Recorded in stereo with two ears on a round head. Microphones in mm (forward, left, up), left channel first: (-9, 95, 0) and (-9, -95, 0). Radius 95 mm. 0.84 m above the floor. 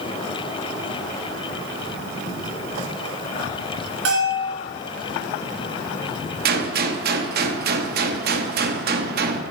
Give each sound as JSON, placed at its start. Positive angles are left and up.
{"t": 4.0, "sound": "a bell", "side_deg": -60, "distance_m": 2.5}
{"t": 6.5, "sound": "a gunshot", "side_deg": -45, "distance_m": 0.6}